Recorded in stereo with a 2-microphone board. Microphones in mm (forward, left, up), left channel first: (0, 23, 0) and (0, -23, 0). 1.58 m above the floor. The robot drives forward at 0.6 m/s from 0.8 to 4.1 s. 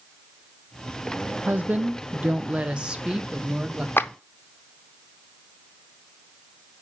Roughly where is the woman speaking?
Right.